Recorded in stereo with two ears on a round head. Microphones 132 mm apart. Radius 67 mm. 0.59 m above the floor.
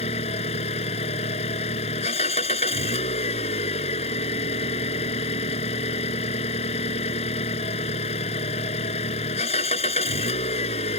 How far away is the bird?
No bird in this recording.